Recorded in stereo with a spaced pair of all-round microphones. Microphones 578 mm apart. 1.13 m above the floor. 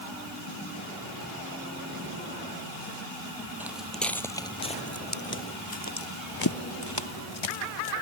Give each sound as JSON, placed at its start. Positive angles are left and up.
{"t": 3.6, "sound": "footsteps", "side_deg": -5}